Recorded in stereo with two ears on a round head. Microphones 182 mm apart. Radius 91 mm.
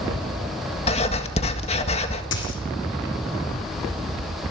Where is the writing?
35° left (ahead or behind), 2.0 m.